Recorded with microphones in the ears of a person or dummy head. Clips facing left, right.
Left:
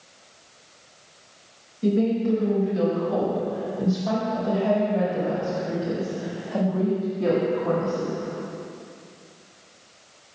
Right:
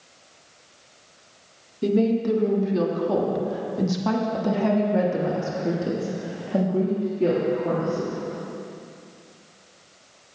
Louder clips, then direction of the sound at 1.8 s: Right 1 dB; 60° right (ahead or behind).